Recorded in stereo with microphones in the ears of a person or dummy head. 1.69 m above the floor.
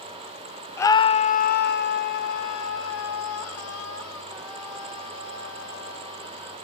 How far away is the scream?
About 0.8 m.